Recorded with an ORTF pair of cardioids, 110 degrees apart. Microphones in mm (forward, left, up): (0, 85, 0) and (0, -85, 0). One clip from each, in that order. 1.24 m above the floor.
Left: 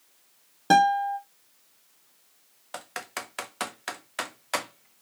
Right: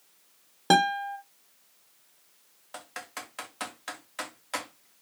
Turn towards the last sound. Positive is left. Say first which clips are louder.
# left 4 dB
turn(degrees=30)